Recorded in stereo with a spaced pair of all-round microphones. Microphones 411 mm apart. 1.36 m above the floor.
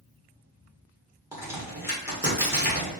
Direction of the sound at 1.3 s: 5° right (ahead or behind).